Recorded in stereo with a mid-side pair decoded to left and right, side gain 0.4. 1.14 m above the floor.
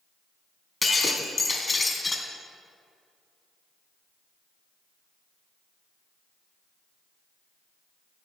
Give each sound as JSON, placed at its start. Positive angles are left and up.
{"t": 0.8, "sound": "breaking glass", "azimuth_deg": 25, "distance_m": 2.5}